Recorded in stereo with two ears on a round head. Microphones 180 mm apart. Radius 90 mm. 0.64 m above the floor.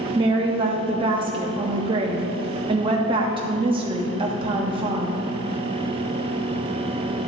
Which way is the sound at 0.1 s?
25° right (ahead or behind).